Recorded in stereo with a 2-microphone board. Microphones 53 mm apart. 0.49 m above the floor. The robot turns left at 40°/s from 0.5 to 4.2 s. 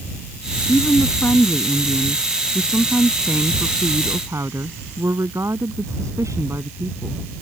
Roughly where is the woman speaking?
Ahead left.